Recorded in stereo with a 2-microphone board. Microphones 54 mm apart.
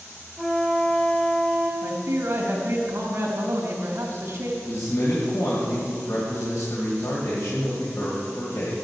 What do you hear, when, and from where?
0.4 s a flute: 5° left (ahead or behind), 1.4 m
1.8 s a man speaking: 45° right (ahead or behind), 3.5 m
4.7 s a man speaking: 75° left (ahead or behind), 2.5 m